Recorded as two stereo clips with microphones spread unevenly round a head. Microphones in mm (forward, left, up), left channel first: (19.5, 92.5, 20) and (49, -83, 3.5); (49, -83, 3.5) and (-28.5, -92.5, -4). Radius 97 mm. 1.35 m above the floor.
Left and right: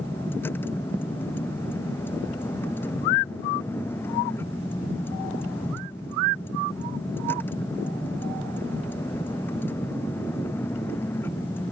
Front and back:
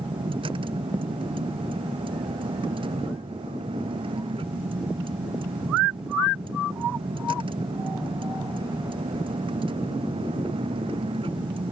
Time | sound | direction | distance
0.0 | a vehicle | straight behind | ?